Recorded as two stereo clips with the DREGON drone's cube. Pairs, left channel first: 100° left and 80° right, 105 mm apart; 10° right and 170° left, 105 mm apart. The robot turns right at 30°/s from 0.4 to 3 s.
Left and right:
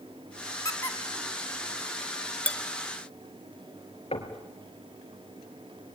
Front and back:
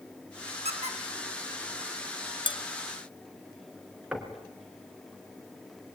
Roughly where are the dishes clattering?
Ahead.